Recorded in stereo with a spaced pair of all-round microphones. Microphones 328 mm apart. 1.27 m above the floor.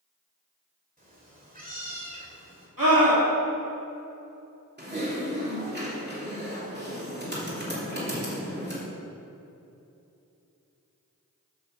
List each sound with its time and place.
1.0 s a cat meowing: 25° right (ahead or behind), 2.5 m
2.8 s a scream: 75° right (ahead or behind), 3 m
4.8 s typing on a keyboard: 30° right (ahead or behind), 3 m